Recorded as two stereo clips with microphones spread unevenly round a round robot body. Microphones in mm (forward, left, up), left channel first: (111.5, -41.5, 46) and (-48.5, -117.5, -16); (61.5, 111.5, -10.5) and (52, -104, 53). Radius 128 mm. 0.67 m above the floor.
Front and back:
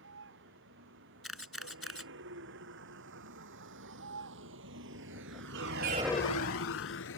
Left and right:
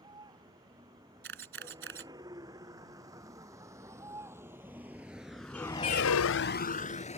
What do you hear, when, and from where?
0.0 s a vehicle: 165° right; by 7.2 s 25° left
1.2 s a camera shutter: 60° right